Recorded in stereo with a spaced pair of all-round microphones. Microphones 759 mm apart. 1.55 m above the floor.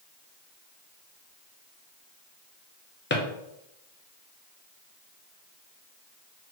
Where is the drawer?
15° left (ahead or behind), 0.6 m.